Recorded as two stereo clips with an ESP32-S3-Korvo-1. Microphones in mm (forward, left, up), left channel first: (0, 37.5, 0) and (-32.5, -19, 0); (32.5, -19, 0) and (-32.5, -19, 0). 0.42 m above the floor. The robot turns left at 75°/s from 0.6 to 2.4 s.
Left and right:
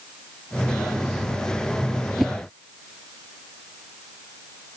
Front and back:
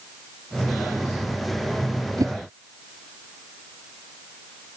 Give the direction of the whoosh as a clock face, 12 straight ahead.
7 o'clock.